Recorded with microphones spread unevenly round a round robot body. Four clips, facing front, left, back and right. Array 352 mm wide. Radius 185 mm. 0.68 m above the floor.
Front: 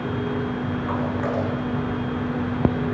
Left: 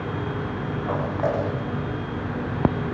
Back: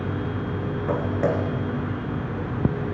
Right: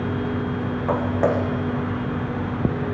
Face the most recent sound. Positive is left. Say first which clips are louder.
# right 4 dB, back 3 dB
turn(degrees=-145)